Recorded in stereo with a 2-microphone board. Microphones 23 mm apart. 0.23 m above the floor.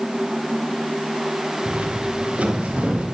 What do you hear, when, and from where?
1.6 s footsteps: 80° right, 3 m; by 3.0 s 65° right (ahead or behind), 3 m